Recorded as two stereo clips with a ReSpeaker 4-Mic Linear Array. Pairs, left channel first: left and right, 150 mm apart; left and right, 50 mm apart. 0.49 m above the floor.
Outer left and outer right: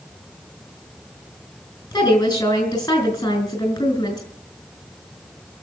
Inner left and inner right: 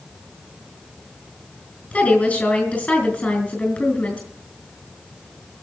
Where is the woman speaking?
25° left (ahead or behind), 5.5 m.